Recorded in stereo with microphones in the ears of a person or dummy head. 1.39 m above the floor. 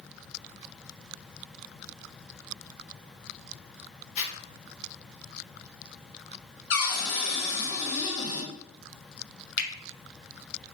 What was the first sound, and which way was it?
A zipper, 40° left (ahead or behind).